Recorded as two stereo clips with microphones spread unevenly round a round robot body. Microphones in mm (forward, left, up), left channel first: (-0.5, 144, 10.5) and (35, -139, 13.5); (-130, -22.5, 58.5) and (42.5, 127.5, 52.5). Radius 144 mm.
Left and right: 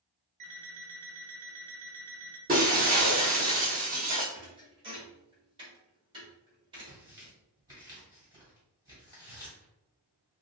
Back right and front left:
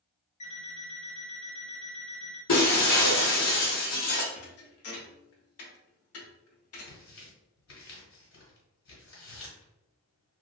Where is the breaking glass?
145° right, 1.2 m.